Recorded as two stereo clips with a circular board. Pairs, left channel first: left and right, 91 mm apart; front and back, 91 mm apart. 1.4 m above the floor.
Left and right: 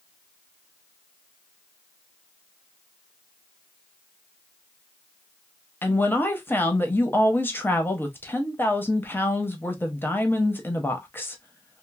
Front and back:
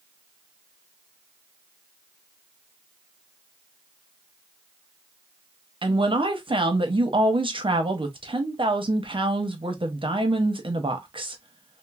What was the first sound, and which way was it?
A woman speaking, 160° left.